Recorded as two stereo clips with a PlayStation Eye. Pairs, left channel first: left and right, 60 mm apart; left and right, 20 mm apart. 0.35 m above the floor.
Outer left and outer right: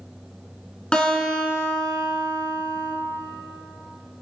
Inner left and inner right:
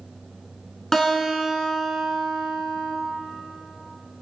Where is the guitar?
15° left (ahead or behind), 3.5 m.